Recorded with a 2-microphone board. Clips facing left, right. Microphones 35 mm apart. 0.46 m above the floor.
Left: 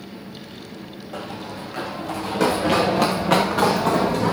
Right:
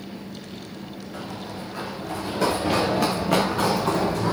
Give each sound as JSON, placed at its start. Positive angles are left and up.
{"t": 1.1, "sound": "running footsteps", "side_deg": 85, "distance_m": 8.5}